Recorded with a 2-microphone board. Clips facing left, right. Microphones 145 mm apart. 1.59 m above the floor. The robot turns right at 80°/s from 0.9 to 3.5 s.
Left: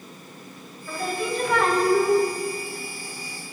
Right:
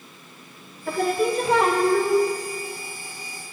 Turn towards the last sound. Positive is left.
turn(degrees=130)